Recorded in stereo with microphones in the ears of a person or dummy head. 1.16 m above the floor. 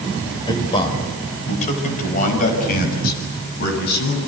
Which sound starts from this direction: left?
A man speaking, at 0.5 s.